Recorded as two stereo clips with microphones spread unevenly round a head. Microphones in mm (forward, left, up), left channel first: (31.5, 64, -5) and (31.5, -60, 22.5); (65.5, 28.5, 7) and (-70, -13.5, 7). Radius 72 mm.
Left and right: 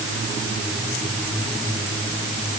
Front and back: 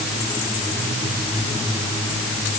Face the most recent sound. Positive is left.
No sound to turn to.